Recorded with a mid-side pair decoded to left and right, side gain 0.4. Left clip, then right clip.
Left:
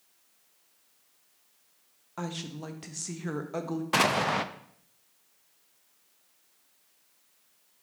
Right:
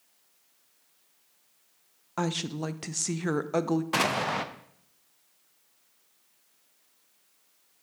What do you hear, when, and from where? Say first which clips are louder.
2.2 s a woman speaking: right 7 dB; 50° right, 0.5 m
3.9 s an explosion: left 4 dB; 15° left, 0.5 m